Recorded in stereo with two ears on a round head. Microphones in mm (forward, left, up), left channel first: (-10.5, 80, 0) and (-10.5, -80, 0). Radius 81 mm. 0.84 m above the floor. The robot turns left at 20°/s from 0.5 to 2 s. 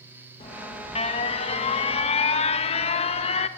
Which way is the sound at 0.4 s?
115° left.